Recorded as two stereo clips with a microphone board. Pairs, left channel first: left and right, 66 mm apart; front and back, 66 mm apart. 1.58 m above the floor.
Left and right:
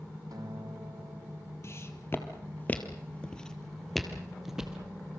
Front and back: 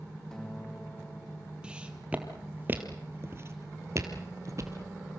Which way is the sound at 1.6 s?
115° left.